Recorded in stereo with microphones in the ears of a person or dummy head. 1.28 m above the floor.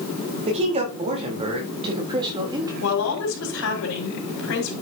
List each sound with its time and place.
0.5 s a man speaking: 35° right (ahead or behind), 4 m; by 2.7 s 20° right (ahead or behind), 3.5 m
2.8 s a woman speaking: 75° left (ahead or behind), 5.5 m